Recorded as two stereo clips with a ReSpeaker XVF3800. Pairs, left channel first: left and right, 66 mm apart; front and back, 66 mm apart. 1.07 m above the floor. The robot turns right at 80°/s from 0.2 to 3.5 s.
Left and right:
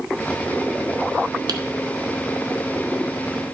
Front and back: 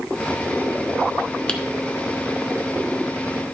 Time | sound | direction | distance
1.5 | typing on a keyboard | 75° right | 1.2 m